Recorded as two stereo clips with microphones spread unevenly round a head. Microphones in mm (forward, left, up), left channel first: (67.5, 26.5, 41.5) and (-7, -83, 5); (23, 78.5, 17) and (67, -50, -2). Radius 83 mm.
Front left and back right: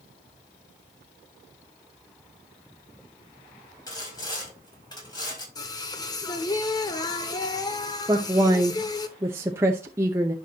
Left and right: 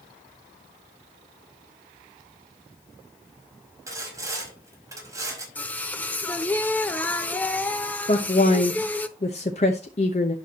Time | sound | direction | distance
3.9 | sawing | 5° right | 5 m
5.5 | singing | 50° left | 0.9 m
8.1 | a woman speaking | 165° left | 0.8 m